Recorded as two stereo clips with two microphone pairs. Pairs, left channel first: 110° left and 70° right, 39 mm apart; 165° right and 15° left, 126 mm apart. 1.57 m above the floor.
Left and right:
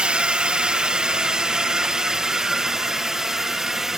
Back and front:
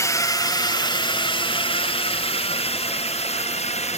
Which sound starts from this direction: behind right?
A drone, at 0.0 s.